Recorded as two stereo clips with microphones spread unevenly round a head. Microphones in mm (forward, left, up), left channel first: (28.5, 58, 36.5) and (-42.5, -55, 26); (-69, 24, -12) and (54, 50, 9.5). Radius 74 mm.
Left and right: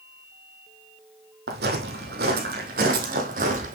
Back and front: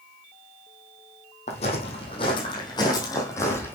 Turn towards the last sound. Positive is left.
turn(degrees=-90)